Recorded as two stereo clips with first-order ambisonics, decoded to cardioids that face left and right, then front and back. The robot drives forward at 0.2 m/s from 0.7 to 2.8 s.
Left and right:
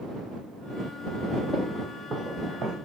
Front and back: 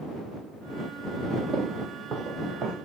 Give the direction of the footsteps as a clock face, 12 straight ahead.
7 o'clock.